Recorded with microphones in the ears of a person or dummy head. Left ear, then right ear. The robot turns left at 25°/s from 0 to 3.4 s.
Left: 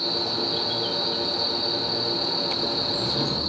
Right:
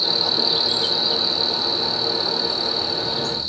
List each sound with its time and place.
0.0 s an insect: 45° right, 0.8 m; by 3.5 s 130° right, 0.8 m